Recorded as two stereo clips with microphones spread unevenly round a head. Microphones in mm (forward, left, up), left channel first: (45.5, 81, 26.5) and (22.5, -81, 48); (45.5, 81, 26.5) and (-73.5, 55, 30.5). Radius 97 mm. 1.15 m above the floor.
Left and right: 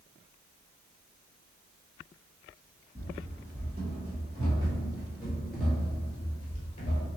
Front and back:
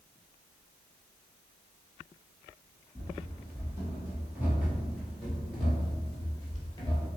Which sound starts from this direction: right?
Running footsteps, at 3.0 s.